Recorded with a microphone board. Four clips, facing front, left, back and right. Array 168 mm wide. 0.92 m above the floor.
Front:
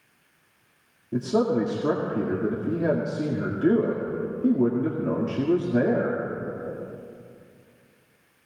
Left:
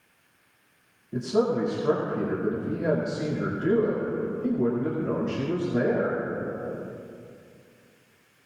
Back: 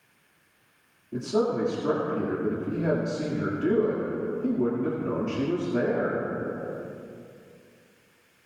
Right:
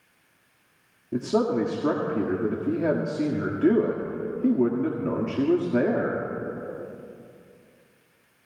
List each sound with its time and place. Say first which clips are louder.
1.1 s a man speaking: right 1 dB, front 3 dB; 65° right, 2 m